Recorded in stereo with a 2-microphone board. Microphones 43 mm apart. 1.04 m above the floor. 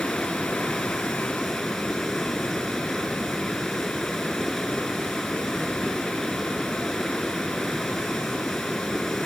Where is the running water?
5° left (ahead or behind).